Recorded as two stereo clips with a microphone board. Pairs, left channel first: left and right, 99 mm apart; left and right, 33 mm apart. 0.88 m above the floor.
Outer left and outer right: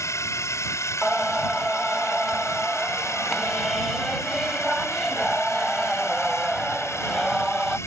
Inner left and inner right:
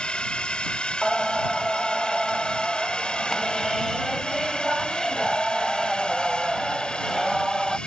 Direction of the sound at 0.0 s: 30° left (ahead or behind).